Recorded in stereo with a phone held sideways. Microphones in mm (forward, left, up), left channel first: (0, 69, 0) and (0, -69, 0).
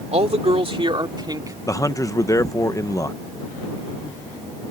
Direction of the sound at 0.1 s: 50° right (ahead or behind).